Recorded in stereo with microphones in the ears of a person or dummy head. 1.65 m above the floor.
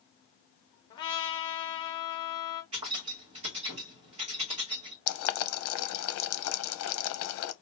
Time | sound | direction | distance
0.9 | a trumpet | 20° left (ahead or behind) | 0.7 m
2.7 | keys jangling | 30° right (ahead or behind) | 0.9 m
5.1 | boiling | 75° left (ahead or behind) | 0.6 m